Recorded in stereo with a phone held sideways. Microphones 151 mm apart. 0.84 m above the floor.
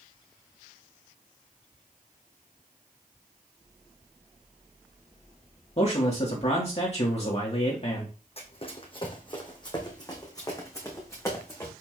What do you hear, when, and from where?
5.8 s a man speaking: 45° left (ahead or behind), 1.8 m
8.4 s running footsteps: 40° left (ahead or behind), 2.5 m; by 11.7 s 15° left (ahead or behind), 3.5 m